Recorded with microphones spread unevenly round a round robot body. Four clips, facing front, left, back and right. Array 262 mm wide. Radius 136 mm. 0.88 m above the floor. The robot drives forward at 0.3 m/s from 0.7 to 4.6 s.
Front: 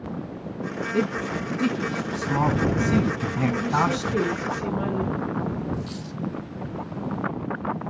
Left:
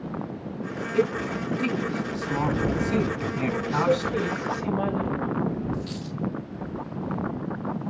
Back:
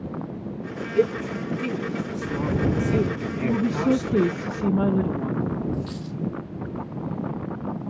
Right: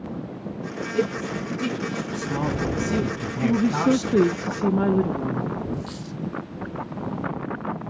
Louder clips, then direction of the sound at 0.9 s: Left 1 dB, back 4 dB; 5° right.